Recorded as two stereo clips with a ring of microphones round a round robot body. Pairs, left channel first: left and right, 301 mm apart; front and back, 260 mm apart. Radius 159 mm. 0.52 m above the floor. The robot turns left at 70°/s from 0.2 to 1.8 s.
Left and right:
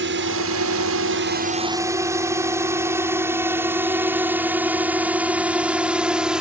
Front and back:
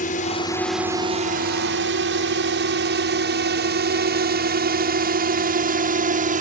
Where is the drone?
50° right; by 6.4 s 175° right.